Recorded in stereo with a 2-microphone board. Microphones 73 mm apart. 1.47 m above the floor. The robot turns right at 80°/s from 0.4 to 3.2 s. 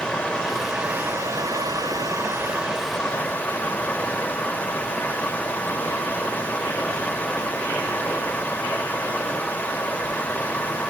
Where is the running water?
165° left, 1.3 m; by 10.9 s 25° left, 1.3 m.